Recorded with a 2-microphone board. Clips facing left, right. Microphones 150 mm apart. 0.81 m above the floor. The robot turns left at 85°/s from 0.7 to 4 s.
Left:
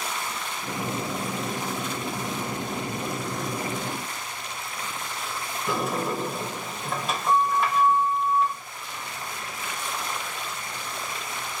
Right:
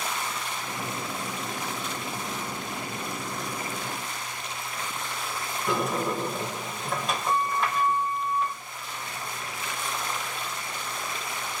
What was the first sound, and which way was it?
A sliding door, centre (ahead or behind).